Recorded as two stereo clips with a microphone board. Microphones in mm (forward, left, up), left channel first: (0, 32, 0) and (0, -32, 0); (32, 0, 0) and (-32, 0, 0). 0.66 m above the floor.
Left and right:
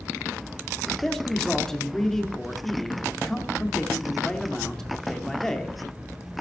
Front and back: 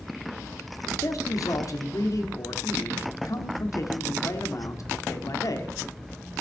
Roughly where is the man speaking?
Ahead.